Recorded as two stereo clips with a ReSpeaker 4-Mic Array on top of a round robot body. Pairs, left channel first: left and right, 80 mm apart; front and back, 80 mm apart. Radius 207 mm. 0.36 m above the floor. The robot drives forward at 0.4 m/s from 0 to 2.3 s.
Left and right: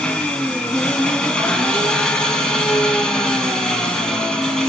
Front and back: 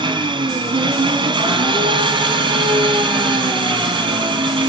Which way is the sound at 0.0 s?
165° left.